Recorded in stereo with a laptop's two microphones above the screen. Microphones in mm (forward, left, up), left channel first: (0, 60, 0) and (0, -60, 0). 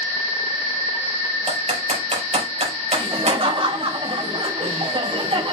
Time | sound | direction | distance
1.5 | typing on a keyboard | 65° right (ahead or behind) | 5 m
2.9 | laughter | 50° right (ahead or behind) | 5 m